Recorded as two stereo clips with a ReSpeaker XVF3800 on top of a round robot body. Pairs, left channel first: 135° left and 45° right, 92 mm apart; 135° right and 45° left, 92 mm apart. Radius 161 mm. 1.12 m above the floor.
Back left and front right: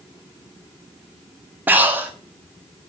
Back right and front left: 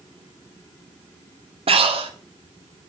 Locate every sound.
1.7 s breathing: 25° left, 1.3 m